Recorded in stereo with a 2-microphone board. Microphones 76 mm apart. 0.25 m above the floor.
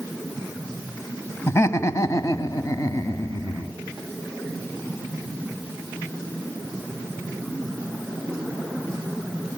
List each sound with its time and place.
1.5 s laughter: 35° left (ahead or behind), 1.8 m; by 3.7 s 45° left (ahead or behind), 3 m